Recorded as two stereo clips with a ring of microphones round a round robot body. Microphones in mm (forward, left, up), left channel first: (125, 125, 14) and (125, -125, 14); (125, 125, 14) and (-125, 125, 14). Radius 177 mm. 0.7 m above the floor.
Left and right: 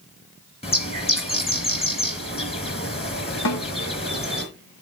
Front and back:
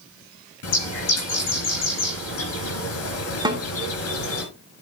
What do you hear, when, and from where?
0.6 s a bird: 20° left, 3 m
3.5 s a snare drum: 105° left, 1.9 m